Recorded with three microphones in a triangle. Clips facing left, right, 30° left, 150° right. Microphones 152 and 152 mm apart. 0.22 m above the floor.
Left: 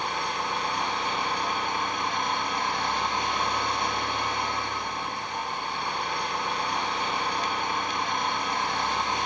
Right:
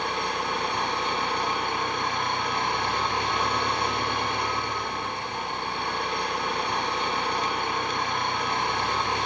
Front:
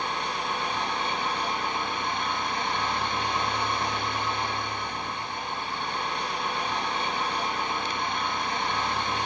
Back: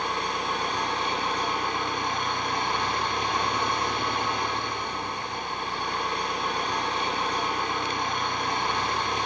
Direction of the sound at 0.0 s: 105° right.